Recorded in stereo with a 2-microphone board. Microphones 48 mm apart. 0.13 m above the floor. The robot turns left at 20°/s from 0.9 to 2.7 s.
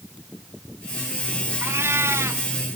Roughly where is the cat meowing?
Right.